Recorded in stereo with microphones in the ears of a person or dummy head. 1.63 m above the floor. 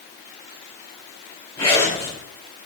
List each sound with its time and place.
1.6 s a zipper: 20° left (ahead or behind), 3.5 m